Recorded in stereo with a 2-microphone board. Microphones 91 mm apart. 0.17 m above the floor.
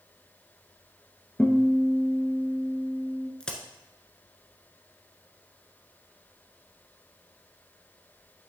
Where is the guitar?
20° left (ahead or behind), 1.2 m.